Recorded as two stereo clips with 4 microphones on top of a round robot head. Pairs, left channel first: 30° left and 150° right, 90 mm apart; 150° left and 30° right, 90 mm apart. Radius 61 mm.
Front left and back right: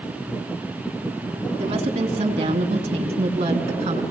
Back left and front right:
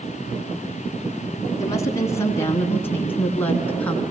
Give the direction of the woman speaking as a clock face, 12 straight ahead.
5 o'clock.